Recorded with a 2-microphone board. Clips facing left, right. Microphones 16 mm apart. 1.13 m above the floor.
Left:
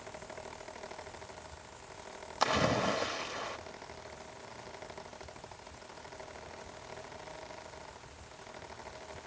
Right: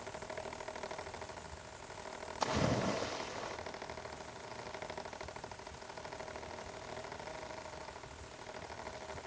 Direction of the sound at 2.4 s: 75° left (ahead or behind).